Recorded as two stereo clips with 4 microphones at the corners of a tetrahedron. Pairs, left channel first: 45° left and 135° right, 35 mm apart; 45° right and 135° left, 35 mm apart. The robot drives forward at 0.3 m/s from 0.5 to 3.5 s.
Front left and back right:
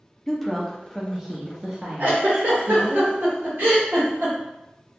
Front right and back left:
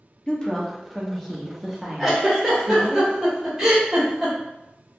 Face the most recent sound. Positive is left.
turn(degrees=-150)